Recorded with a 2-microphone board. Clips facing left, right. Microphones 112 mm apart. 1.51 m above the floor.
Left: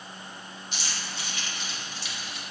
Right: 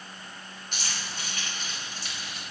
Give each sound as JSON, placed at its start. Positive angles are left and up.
{"t": 0.7, "sound": "keys jangling", "side_deg": -60, "distance_m": 3.5}